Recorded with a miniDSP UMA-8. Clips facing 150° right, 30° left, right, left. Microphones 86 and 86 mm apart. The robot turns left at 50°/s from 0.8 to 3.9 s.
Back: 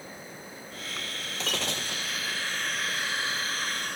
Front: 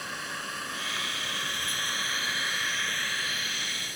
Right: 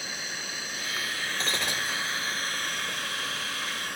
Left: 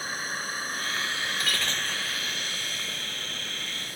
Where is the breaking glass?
150° right; by 2.2 s 170° left.